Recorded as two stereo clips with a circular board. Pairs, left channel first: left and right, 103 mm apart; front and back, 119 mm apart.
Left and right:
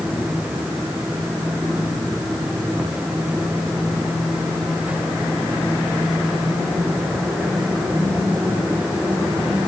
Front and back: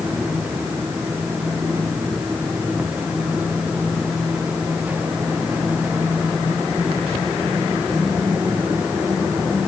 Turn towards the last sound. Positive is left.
No sound to turn to.